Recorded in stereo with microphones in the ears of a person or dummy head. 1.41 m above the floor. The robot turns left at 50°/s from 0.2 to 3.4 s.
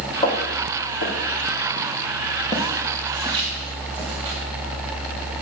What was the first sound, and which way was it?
Footsteps, 25° left (ahead or behind).